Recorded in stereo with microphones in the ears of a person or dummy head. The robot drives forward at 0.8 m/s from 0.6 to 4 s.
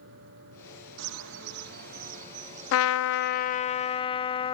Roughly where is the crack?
No crack in this recording.